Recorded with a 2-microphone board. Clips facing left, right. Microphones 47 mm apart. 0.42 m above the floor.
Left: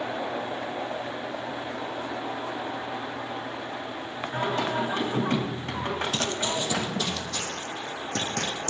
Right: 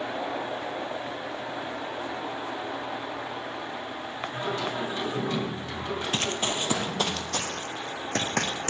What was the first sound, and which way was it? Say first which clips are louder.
Singing: left 4 dB; 60° left (ahead or behind).